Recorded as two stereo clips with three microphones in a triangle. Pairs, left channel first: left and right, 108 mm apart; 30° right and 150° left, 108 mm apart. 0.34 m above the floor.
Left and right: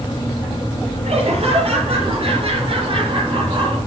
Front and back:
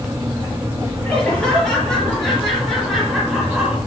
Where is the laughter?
110° right, 8 m; by 3.8 s 130° right, 4.5 m.